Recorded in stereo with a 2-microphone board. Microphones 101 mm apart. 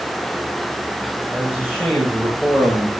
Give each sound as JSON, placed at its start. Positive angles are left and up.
{"t": 1.3, "sound": "a man speaking", "side_deg": -10, "distance_m": 6.0}